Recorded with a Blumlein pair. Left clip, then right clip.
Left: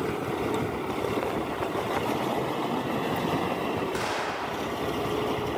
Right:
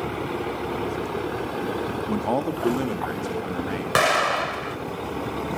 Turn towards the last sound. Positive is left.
turn(degrees=-55)